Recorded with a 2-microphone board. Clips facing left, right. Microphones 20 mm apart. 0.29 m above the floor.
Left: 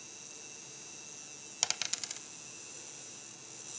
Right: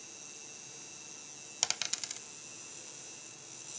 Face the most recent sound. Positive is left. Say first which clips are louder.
# even
turn(degrees=0)  # may be behind; listen again after turning